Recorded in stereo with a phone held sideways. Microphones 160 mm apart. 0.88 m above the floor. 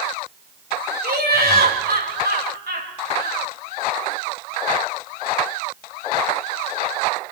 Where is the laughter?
70° right (ahead or behind), 4 m; by 3.4 s 85° right, 5.5 m.